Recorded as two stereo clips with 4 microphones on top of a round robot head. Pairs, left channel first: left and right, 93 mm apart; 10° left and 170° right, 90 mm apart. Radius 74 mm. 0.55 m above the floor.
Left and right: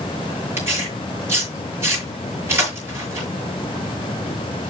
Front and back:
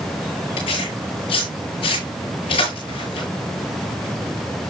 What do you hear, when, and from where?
0.6 s tearing paper: 30° right, 7 m